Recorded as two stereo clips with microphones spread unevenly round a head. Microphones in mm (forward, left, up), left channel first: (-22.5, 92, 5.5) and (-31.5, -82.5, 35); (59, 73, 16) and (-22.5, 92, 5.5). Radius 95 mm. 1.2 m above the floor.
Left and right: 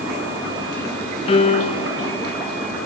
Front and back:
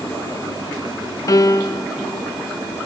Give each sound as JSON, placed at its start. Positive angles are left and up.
{"t": 1.3, "sound": "a piano", "azimuth_deg": 20, "distance_m": 0.7}